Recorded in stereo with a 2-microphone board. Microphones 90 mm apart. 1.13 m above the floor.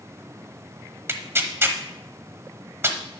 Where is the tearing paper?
25° right (ahead or behind), 1.1 m.